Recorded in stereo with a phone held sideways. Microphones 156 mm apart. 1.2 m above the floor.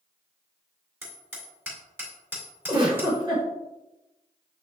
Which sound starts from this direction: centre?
Hammering, at 1.0 s.